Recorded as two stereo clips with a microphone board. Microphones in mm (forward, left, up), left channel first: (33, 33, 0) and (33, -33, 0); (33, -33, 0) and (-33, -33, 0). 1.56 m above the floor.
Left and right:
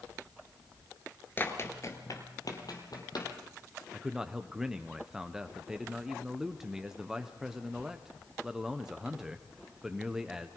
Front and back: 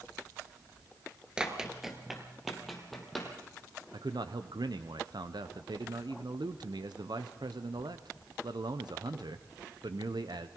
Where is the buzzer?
No buzzer in this recording.